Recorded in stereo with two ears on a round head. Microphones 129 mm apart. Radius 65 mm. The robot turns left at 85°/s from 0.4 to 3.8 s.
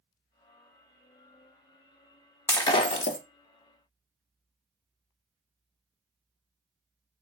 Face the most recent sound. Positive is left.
turn(degrees=45)